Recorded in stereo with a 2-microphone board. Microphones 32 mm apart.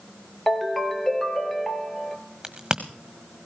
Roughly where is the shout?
No shout in this recording.